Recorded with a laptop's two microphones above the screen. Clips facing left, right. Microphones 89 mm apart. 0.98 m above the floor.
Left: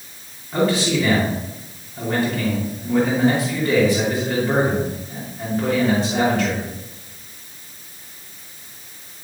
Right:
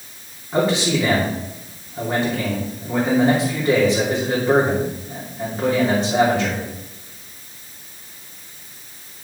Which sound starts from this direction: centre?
A man speaking, at 0.5 s.